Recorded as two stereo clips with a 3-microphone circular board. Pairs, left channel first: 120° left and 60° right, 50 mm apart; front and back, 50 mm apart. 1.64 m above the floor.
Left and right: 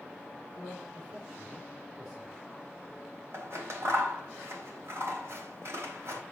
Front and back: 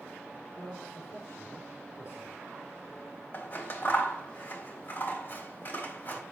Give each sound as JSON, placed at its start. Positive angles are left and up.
{"t": 0.6, "sound": "a man speaking", "azimuth_deg": 0, "distance_m": 4.0}
{"t": 3.3, "sound": "scissors", "azimuth_deg": -40, "distance_m": 4.0}